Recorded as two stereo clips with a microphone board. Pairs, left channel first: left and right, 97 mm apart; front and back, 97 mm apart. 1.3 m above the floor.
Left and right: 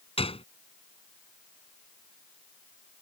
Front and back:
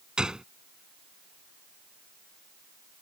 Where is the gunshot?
100° left.